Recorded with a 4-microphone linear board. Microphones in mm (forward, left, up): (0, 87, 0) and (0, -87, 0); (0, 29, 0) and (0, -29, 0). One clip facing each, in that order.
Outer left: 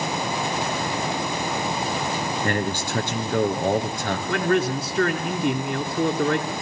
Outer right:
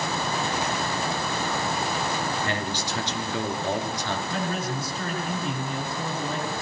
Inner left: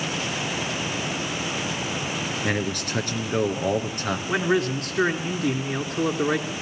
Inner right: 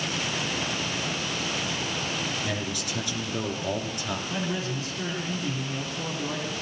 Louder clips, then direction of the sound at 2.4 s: Outer left 4 dB, inner left 5 dB; 50° left (ahead or behind).